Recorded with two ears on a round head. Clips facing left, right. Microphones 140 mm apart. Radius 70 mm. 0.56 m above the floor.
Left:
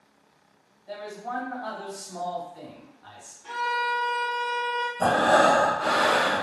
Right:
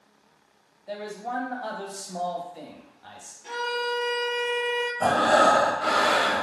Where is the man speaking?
30° right (ahead or behind), 0.9 m.